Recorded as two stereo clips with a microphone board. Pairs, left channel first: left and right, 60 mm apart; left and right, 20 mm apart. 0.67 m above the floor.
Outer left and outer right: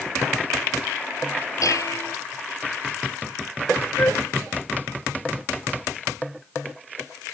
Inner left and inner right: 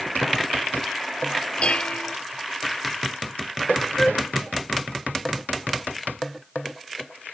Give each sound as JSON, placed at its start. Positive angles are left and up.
{"t": 1.6, "sound": "dishes clattering", "side_deg": 65}
{"t": 4.0, "sound": "a flute", "side_deg": 45}